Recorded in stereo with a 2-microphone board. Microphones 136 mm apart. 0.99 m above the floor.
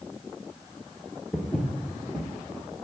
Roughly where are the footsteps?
Centre.